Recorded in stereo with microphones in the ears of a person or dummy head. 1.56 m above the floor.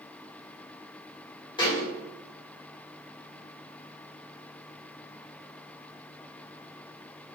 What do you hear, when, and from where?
1.6 s a thud: 30° left (ahead or behind), 2.0 m